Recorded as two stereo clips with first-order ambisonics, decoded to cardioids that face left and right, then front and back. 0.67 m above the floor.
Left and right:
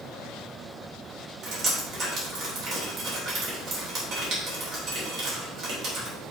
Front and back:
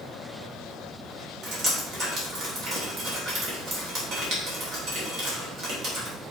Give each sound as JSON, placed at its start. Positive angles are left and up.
{"t": 1.4, "sound": "dripping", "azimuth_deg": -135, "distance_m": 3.0}